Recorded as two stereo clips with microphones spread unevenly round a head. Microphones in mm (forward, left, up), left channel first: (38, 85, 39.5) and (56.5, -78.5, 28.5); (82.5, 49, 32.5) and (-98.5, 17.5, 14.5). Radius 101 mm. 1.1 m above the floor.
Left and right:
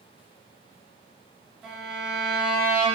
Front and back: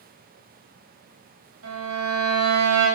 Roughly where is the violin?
Behind.